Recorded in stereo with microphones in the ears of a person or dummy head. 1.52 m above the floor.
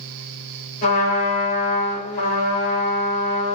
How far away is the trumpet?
About 5 m.